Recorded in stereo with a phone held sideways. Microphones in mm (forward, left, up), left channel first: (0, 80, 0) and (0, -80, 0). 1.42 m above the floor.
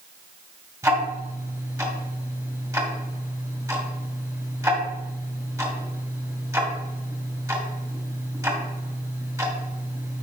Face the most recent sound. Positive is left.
turn(degrees=-20)  # may be behind; listen again after turning